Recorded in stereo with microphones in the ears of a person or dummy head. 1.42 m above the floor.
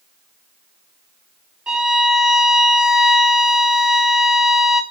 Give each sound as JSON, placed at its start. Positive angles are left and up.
{"t": 1.7, "sound": "a violin", "side_deg": -5, "distance_m": 0.6}